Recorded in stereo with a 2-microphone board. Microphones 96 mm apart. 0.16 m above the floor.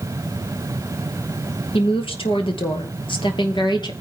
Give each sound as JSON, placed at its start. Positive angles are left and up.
{"t": 1.7, "sound": "a woman speaking", "side_deg": 65, "distance_m": 2.5}